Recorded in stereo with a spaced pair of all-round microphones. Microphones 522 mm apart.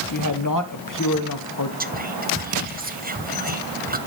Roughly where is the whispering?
Centre.